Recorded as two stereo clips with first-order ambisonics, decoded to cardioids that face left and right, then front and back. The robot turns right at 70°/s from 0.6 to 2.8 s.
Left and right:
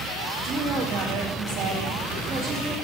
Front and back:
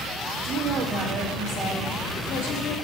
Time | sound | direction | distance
0.4 | a woman speaking | 135° right | 1.5 m